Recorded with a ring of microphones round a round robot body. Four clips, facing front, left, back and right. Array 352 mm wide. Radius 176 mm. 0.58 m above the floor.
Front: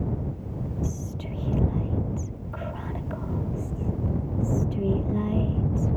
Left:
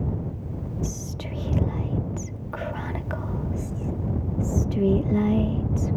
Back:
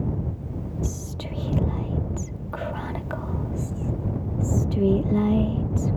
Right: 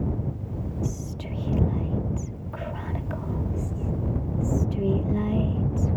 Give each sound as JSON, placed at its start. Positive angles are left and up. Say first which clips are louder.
{"t": 0.8, "sound": "whispering", "louder": "even, even", "azimuth_deg": 140}